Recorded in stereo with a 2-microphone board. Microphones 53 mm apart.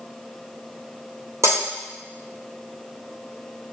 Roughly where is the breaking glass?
Right.